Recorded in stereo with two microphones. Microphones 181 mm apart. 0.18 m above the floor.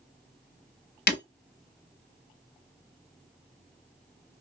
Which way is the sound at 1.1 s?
70° left (ahead or behind).